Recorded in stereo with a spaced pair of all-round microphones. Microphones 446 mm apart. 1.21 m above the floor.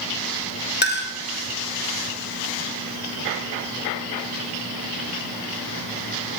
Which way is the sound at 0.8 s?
25° left (ahead or behind).